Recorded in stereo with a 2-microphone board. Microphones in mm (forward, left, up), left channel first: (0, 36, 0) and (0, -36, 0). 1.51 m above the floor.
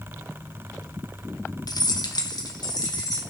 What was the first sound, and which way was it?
Keys jangling, 65° left (ahead or behind).